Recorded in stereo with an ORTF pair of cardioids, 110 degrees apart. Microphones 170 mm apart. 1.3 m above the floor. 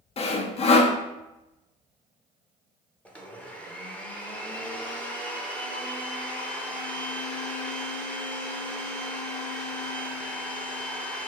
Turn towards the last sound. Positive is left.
turn(degrees=5)